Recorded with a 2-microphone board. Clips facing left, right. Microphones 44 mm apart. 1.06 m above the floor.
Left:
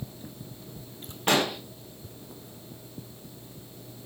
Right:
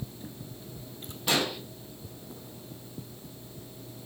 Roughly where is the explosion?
Left.